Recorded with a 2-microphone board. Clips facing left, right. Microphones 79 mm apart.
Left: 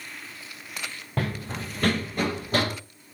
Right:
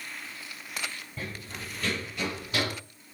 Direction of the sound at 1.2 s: 75° left (ahead or behind).